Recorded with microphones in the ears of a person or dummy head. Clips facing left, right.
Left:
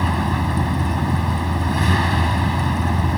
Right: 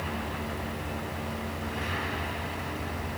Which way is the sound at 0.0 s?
75° left (ahead or behind).